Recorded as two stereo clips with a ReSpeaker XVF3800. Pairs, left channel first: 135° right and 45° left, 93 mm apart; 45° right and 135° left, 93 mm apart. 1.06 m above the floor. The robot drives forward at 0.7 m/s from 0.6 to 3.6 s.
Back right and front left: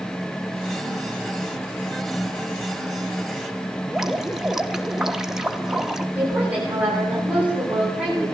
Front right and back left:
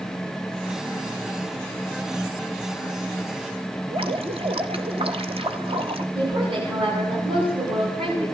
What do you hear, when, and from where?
3.9 s dripping: 130° left, 1.0 m
6.2 s a woman speaking: 120° left, 10 m